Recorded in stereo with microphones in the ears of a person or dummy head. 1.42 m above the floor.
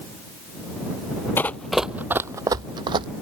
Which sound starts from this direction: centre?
Running footsteps, at 1.4 s.